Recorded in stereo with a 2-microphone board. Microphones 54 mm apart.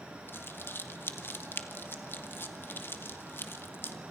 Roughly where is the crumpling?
Left.